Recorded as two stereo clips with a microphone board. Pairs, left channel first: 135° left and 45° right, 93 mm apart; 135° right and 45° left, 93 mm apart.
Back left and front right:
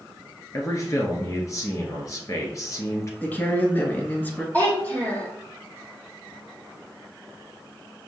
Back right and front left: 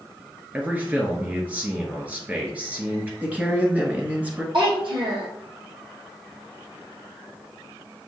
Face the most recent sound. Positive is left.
turn(degrees=65)